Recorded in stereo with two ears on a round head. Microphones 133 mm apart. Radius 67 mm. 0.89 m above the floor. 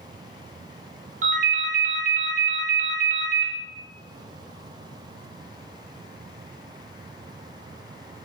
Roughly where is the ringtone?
Right.